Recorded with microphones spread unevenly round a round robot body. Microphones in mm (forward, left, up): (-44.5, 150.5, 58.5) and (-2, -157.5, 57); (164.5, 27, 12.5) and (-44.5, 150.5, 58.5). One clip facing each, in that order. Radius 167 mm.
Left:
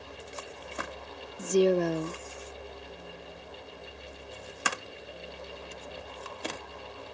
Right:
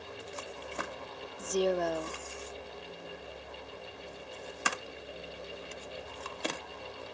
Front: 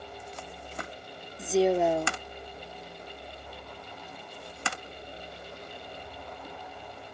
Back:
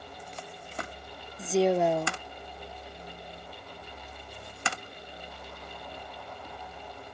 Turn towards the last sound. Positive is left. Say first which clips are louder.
# left 6 dB, front 1 dB
turn(degrees=50)